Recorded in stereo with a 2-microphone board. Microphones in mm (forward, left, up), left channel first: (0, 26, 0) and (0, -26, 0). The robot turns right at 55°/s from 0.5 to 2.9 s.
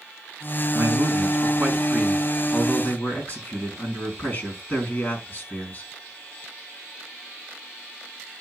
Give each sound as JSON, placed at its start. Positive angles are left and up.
{"t": 0.7, "sound": "a man speaking", "azimuth_deg": -80, "distance_m": 4.5}